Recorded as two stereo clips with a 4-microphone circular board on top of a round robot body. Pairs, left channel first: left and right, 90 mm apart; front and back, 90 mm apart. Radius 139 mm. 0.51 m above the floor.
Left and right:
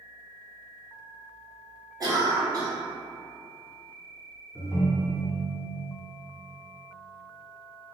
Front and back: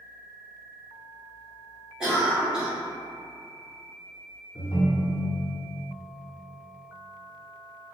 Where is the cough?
100° right, 1.8 m.